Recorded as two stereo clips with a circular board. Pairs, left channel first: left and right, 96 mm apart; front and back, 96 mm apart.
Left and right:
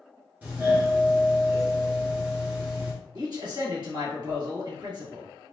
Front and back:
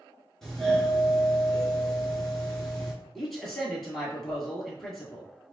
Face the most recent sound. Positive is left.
turn(degrees=-85)